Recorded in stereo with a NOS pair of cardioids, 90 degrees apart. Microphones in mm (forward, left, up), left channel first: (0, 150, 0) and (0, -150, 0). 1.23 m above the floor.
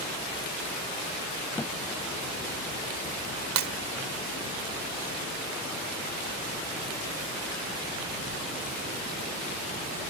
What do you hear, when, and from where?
1.6 s a thud: 10° left
3.6 s breaking glass: 70° right